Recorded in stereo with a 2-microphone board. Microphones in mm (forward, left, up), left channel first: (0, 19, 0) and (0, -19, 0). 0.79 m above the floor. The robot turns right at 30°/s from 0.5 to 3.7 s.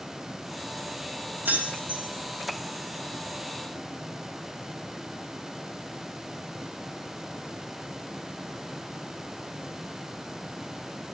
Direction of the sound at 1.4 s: 60° right (ahead or behind).